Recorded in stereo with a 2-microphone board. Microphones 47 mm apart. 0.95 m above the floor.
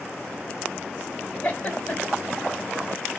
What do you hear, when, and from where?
1.4 s a giggle: 35° left (ahead or behind), 1.8 m